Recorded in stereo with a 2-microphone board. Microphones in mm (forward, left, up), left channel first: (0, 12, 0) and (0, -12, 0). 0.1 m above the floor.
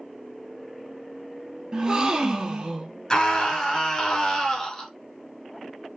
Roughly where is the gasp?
Right.